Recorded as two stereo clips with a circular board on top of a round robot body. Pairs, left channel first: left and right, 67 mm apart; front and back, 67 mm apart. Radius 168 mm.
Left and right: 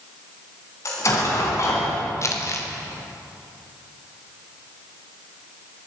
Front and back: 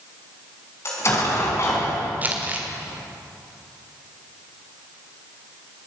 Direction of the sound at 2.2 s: 120° left.